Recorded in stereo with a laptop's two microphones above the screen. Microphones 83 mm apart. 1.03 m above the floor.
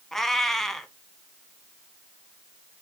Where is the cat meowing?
5° left (ahead or behind), 1.0 m.